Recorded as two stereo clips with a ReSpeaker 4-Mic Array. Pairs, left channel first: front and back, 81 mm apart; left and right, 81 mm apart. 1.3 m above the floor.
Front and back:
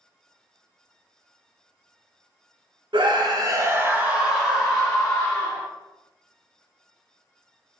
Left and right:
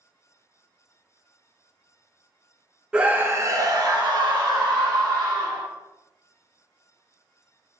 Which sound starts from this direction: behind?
A scream, at 2.9 s.